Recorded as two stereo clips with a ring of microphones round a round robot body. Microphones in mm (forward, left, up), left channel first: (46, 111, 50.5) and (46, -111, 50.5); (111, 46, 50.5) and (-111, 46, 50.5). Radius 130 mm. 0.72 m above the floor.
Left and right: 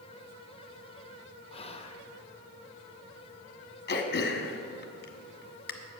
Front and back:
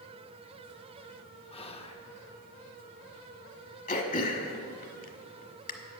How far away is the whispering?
About 1.2 m.